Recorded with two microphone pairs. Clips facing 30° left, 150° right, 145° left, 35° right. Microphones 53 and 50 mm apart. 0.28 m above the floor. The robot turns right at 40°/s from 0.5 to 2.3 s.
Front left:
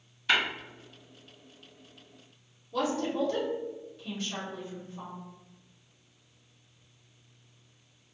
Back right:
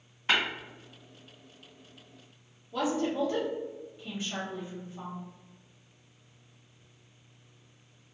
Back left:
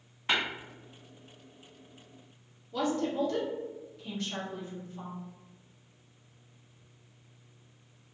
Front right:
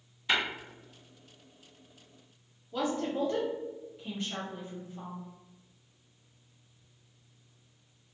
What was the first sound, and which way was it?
Tapping, 175° left.